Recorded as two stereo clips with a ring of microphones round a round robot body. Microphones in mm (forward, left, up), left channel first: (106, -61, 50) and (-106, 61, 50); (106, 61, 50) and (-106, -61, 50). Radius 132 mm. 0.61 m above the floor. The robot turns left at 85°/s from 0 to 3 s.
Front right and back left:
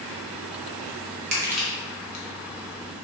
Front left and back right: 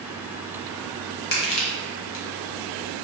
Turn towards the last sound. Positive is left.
turn(degrees=-60)